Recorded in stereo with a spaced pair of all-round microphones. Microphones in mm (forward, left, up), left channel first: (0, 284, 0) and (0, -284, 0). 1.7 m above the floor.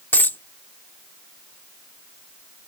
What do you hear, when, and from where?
0.1 s a dropped coin: 5° left (ahead or behind)